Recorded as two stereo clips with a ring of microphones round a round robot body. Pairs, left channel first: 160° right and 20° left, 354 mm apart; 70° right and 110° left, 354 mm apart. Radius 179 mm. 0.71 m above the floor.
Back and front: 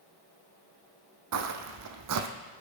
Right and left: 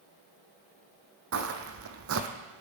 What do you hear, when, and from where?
1.3 s footsteps: 65° left, 1.4 m